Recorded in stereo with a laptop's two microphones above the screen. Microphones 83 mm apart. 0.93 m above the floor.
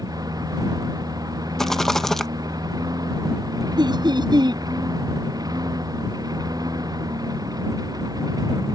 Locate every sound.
0.0 s a lawn mower: 50° right (ahead or behind)
1.6 s a rattle: 5° left (ahead or behind)
3.8 s laughter: 60° right (ahead or behind)